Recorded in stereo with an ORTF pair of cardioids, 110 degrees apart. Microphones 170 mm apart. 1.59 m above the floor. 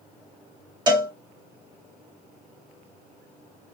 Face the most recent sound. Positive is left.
turn(degrees=-25)